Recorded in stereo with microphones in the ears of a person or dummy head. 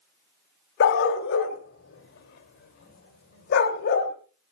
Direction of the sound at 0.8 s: 65° left (ahead or behind).